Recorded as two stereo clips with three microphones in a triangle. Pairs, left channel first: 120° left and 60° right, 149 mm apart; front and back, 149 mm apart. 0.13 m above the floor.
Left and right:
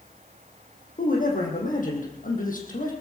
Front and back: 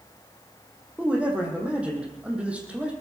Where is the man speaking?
100° left, 4.5 m.